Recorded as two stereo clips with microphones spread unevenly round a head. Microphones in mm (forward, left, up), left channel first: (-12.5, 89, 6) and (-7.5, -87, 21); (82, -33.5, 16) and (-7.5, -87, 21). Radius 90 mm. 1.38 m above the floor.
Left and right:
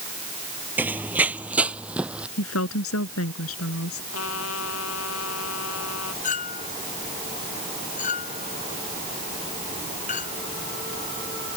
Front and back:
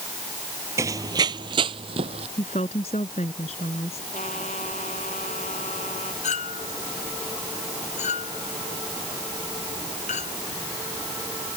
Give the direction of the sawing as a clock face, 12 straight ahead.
No sawing in this recording.